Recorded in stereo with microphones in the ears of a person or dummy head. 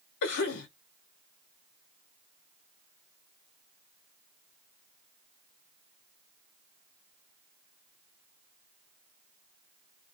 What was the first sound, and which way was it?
A cough, 60° left (ahead or behind).